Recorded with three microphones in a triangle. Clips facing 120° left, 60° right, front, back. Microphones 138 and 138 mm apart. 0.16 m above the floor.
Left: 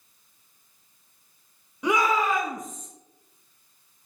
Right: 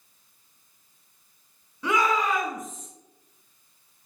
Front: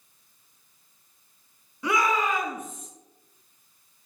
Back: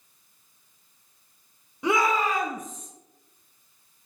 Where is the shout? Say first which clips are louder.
Left 1 dB, back 1 dB; 165° left, 1.3 m; by 2.9 s 145° right, 2 m.